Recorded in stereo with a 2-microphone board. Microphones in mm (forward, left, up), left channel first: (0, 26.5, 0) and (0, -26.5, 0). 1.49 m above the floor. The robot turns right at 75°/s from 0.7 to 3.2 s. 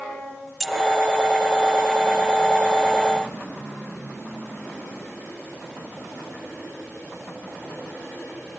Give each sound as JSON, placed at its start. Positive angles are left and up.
{"t": 0.6, "sound": "keys jangling", "side_deg": 0, "distance_m": 1.1}